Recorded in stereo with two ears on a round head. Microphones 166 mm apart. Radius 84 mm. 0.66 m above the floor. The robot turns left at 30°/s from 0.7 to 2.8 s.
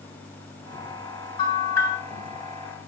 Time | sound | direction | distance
1.4 | a bell | 25° left (ahead or behind) | 6.5 m